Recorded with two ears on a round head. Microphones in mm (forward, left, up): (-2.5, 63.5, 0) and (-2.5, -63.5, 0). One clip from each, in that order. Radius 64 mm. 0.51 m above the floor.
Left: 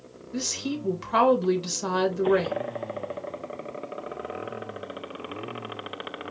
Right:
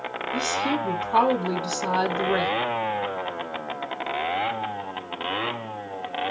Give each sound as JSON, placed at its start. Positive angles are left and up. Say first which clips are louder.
{"t": 0.3, "sound": "a woman speaking", "louder": "right 5 dB", "side_deg": 60, "distance_m": 2.5}